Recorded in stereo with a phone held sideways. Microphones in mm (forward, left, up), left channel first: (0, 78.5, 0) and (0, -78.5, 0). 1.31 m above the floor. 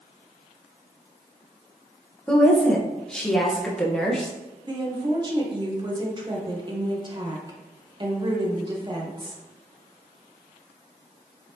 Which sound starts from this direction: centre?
A woman speaking, at 2.3 s.